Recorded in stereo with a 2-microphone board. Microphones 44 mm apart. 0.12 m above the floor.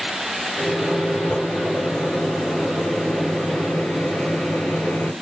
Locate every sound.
0.6 s a microwave: 35° left (ahead or behind), 1.6 m